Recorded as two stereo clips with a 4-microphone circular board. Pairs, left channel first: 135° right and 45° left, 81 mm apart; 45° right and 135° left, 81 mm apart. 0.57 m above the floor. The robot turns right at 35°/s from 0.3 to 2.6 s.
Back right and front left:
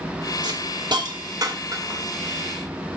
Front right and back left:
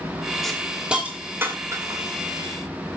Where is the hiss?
40° left, 2 m; by 2.0 s 95° left, 2 m.